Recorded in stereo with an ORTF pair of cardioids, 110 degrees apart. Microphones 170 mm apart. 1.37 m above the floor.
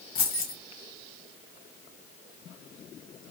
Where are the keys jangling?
60° left, 0.9 m.